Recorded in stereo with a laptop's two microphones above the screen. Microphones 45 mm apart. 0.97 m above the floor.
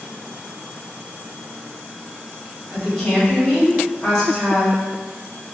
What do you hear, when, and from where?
2.7 s a woman speaking: 10° left (ahead or behind), 1.9 m